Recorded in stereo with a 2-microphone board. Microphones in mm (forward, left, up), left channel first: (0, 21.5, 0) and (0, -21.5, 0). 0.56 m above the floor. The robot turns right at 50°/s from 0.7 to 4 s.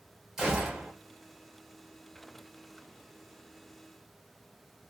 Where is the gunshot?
15° right (ahead or behind), 1.2 m; by 0.9 s 25° right (ahead or behind), 1.2 m.